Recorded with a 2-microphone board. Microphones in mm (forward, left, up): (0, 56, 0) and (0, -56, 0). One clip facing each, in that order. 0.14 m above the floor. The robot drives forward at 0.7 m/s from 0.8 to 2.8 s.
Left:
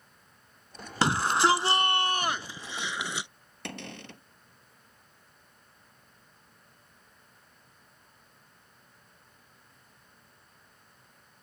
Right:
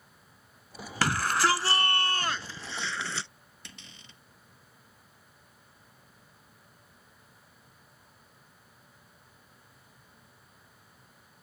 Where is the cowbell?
No cowbell in this recording.